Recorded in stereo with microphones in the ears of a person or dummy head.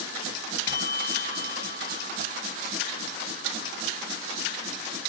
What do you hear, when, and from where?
0.7 s a bell: 20° left (ahead or behind)